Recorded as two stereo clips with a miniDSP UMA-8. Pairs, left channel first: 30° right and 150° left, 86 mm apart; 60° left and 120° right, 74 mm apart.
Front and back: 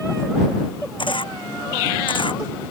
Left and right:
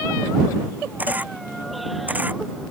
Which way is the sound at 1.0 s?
50° right.